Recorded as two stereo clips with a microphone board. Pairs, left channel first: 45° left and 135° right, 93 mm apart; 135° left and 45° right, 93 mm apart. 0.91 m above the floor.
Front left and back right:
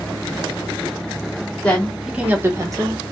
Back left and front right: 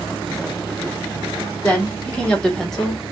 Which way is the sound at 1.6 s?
85° left.